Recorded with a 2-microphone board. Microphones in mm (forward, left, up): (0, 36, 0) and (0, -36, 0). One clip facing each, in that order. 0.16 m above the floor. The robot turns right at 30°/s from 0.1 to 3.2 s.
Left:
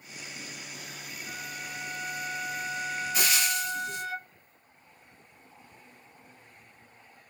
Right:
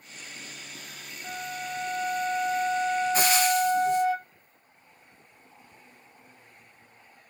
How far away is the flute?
About 2 m.